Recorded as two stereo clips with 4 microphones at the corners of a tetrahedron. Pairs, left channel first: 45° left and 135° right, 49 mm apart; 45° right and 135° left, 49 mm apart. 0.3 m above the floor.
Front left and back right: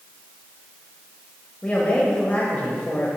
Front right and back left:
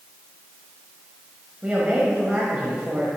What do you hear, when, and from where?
1.6 s a woman speaking: 85° left, 1.2 m